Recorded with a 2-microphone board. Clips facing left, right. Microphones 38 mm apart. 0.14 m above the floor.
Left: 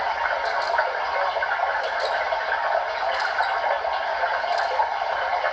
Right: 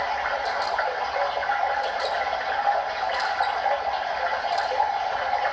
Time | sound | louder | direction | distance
0.0 | running water | left 2 dB | 35° left (ahead or behind) | 2 m